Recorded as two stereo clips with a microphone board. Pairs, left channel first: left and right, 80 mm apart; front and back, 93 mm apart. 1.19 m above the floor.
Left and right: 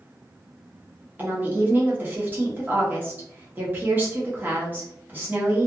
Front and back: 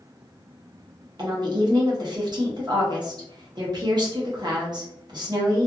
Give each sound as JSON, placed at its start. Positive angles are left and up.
{"t": 1.2, "sound": "a woman speaking", "azimuth_deg": -150, "distance_m": 1.0}